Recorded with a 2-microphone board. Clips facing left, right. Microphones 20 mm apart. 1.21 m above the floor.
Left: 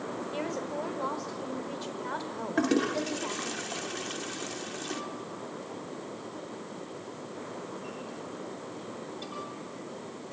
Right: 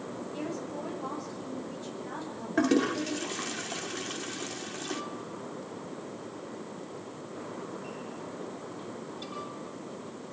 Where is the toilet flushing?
5° right (ahead or behind), 1.5 m.